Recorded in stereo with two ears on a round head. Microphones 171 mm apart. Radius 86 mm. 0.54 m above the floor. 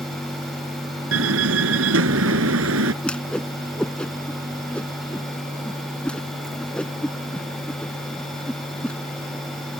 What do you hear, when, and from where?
1.1 s a door slam: 85° right
3.0 s a whoosh: 5° left (ahead or behind)